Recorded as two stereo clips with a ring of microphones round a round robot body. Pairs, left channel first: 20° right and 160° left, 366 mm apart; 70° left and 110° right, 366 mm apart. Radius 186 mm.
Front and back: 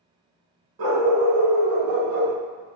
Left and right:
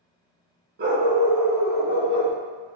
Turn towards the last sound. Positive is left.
turn(degrees=85)